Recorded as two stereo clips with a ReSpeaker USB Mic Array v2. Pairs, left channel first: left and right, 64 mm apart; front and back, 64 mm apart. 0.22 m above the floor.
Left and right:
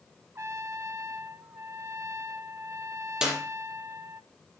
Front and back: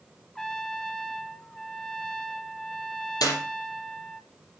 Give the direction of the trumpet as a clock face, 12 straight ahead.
3 o'clock.